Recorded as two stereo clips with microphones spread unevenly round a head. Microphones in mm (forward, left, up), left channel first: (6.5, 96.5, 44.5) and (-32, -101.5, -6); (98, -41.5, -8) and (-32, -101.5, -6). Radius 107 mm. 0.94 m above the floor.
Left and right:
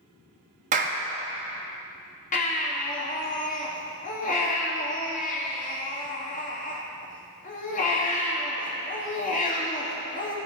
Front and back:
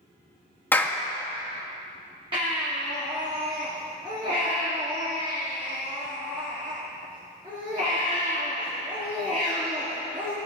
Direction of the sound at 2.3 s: 135° left.